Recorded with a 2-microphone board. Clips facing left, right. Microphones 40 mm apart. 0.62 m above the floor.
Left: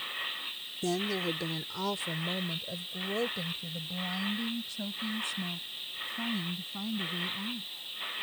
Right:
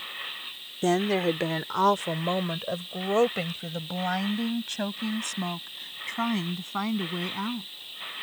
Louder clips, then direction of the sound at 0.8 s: Right 8 dB; 60° right (ahead or behind).